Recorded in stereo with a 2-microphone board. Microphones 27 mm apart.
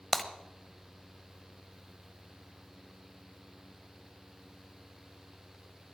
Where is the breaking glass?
10° left (ahead or behind), 1.1 m.